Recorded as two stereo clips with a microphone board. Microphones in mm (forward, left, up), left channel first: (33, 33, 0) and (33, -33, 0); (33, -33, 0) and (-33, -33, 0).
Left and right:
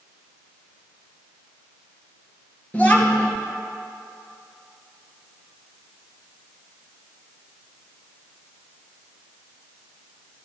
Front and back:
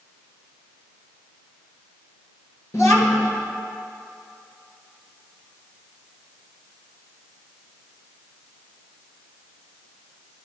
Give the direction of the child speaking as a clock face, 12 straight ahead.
11 o'clock.